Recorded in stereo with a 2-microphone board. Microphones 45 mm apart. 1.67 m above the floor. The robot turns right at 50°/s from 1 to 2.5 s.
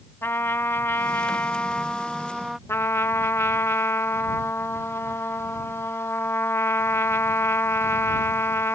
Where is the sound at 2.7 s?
75° left (ahead or behind).